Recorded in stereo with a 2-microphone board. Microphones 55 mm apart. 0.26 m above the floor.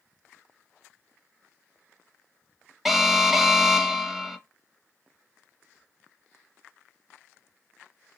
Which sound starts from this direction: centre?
An alarm, at 2.9 s.